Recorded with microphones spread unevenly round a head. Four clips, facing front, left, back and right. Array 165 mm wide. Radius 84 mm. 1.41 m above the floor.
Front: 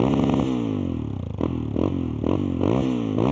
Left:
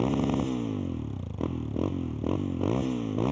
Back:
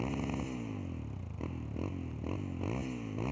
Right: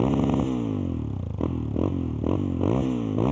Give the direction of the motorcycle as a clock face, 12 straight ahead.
12 o'clock.